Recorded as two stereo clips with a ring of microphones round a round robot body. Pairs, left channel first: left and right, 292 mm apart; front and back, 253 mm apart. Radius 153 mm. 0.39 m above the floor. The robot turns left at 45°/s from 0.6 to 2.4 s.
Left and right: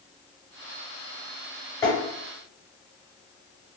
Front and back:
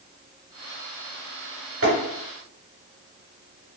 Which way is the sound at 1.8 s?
170° left.